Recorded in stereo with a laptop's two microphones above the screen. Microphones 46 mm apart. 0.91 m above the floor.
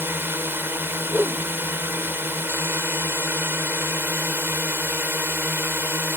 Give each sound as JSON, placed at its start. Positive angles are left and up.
{"t": 0.0, "sound": "a drone", "side_deg": -50}
{"t": 1.1, "sound": "a whoosh", "side_deg": -40}